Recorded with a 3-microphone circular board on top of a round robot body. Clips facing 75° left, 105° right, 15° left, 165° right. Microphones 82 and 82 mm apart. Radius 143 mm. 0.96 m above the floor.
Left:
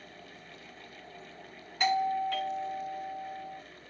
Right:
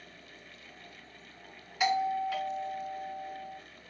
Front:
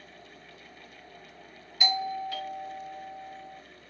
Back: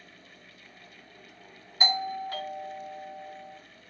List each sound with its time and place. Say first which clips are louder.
1.8 s a doorbell: left 1 dB, even; 170° left, 0.7 m